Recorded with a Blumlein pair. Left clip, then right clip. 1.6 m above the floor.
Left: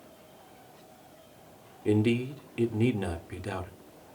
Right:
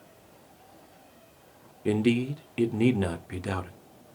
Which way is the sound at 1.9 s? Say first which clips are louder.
Right 1 dB; 15° right.